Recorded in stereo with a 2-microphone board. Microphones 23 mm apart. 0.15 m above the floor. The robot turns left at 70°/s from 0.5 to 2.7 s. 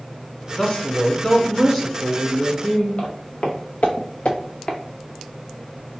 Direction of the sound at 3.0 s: 45° left (ahead or behind).